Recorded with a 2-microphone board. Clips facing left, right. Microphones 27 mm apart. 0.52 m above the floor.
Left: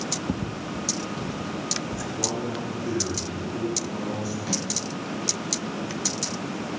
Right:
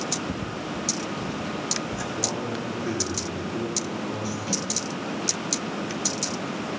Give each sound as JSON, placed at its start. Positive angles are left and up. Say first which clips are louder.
{"t": 0.3, "sound": "footsteps", "louder": "even", "side_deg": 55, "distance_m": 0.8}
{"t": 2.2, "sound": "a man speaking", "louder": "left 2 dB", "side_deg": -10, "distance_m": 6.5}
{"t": 4.5, "sound": "a snare drum", "louder": "even", "side_deg": 15, "distance_m": 8.5}